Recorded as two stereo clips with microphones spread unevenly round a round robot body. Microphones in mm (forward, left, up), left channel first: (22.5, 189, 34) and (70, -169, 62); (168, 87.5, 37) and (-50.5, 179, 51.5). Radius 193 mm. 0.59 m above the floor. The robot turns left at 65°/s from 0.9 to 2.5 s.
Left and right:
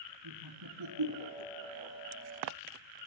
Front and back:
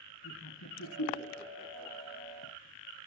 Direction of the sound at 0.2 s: 45° right.